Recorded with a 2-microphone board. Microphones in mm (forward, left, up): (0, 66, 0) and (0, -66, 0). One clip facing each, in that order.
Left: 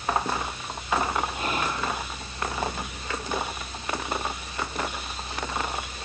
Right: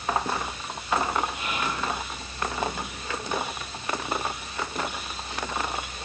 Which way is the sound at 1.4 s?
35° left (ahead or behind).